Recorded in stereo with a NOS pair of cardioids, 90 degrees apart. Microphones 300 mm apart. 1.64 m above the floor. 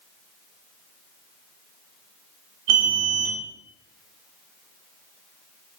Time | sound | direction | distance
2.7 | an alarm | 55° right | 1.0 m